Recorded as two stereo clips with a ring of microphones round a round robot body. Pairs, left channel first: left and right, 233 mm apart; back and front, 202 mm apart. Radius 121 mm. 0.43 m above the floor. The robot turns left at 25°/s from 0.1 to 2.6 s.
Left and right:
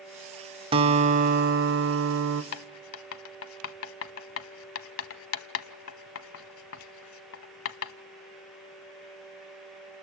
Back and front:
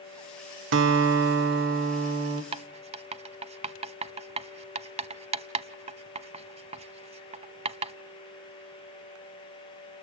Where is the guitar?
25° right, 1.1 m; by 2.4 s 65° right, 1.1 m.